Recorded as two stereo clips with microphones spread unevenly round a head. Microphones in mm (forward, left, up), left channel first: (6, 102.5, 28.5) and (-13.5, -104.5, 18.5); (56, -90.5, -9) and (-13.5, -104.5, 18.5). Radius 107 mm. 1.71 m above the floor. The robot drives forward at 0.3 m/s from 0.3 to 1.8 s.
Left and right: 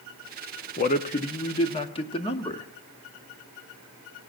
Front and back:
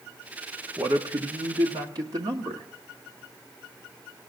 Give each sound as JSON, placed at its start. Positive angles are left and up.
{"t": 0.8, "sound": "a man speaking", "azimuth_deg": 135, "distance_m": 0.7}